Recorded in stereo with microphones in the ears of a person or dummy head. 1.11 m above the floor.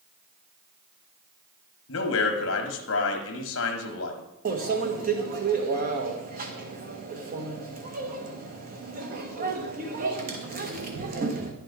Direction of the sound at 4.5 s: 45° right (ahead or behind).